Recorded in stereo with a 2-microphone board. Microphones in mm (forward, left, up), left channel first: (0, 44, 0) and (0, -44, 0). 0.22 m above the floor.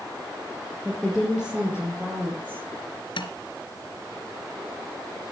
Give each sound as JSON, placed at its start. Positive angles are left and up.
{"t": 0.8, "sound": "a woman speaking", "side_deg": 0, "distance_m": 5.0}
{"t": 3.2, "sound": "tapping", "side_deg": 65, "distance_m": 2.0}